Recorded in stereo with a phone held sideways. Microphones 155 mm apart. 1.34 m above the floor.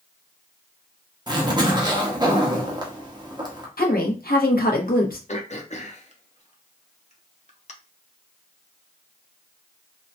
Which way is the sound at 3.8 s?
70° left (ahead or behind).